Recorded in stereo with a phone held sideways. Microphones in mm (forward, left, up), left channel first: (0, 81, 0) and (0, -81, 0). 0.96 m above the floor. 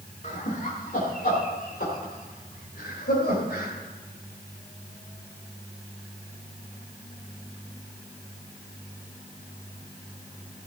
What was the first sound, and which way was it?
Laughter, 50° left (ahead or behind).